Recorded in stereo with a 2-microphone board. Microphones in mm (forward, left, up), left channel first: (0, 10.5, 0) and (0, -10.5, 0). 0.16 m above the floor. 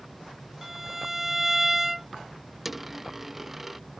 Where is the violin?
15° right (ahead or behind).